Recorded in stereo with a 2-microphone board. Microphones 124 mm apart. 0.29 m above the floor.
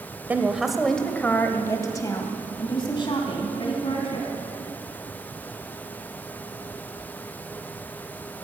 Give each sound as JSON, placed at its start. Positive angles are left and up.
{"t": 0.3, "sound": "a woman speaking", "side_deg": -15, "distance_m": 0.9}